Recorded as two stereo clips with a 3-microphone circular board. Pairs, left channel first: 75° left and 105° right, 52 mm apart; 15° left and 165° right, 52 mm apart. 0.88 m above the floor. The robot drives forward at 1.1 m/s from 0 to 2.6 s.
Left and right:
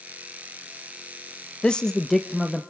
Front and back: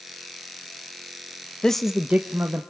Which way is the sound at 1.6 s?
55° left.